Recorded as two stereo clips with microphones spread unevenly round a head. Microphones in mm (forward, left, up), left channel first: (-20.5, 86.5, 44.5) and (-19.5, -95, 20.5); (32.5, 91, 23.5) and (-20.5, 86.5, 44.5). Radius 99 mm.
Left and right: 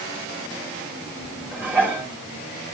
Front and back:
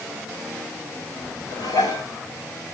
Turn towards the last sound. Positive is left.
turn(degrees=-5)